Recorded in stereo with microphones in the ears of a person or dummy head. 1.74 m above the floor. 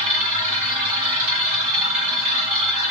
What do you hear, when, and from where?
0.0 s a machine running: 45° right (ahead or behind), 2.5 m